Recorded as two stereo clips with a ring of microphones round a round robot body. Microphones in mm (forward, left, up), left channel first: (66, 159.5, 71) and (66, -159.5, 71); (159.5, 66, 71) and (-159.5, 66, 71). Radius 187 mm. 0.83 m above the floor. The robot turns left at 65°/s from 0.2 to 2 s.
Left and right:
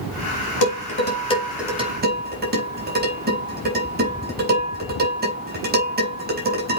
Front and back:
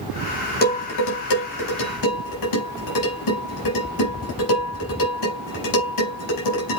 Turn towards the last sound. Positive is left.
turn(degrees=-30)